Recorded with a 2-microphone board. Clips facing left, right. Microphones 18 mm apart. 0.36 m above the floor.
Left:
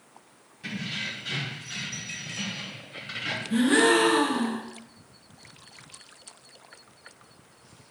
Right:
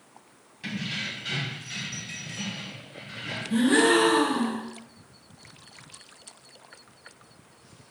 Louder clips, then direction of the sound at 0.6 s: Right 1 dB; 30° right (ahead or behind).